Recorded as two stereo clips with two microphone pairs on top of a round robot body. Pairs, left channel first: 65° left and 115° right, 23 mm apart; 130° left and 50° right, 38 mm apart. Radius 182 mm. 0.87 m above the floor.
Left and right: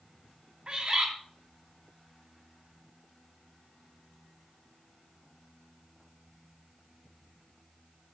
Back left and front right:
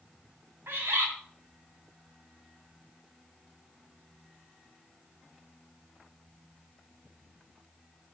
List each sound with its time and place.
0.7 s a bird: 55° right, 2.5 m